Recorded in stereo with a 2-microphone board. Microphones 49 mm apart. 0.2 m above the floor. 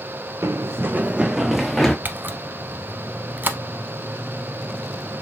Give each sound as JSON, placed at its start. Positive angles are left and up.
{"t": 0.4, "sound": "running footsteps", "side_deg": -70, "distance_m": 0.6}
{"t": 2.0, "sound": "a camera shutter", "side_deg": -45, "distance_m": 0.6}